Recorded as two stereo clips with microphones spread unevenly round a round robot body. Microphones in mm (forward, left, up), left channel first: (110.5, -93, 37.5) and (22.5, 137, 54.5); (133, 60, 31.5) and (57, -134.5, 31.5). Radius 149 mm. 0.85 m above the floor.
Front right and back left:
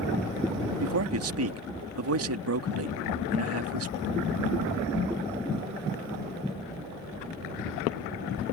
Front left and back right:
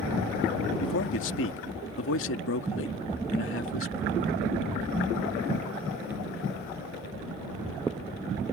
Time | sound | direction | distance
0.8 | a man speaking | 90° left | ?